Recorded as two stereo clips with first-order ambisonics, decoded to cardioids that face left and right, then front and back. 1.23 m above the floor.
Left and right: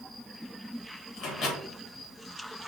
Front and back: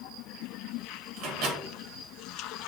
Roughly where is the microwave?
Behind left.